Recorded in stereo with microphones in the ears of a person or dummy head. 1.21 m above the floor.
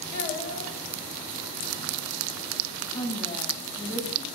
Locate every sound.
0.1 s a child speaking: 50° left (ahead or behind), 4 m
2.9 s a woman speaking: 25° left (ahead or behind), 5.5 m